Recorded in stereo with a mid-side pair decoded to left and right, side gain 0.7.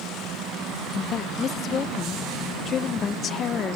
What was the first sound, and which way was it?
A woman speaking, 35° left.